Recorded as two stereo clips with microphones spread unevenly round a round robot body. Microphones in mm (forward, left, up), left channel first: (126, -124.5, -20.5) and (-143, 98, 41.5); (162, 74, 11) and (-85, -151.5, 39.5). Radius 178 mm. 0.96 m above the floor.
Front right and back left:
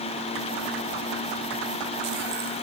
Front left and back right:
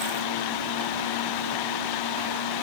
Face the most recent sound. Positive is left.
No sound to turn to.